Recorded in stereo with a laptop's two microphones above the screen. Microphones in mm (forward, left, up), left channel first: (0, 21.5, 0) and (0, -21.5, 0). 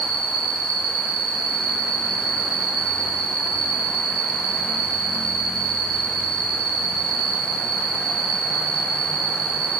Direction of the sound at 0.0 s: 5° right (ahead or behind).